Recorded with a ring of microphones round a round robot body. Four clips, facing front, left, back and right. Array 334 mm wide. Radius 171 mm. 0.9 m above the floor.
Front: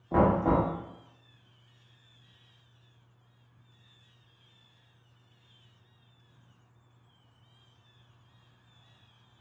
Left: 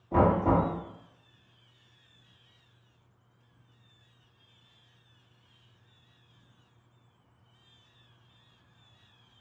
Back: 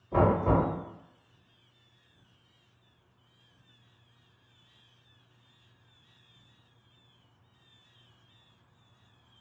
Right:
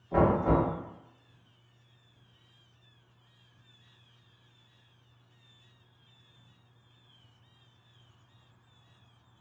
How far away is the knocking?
About 1.5 m.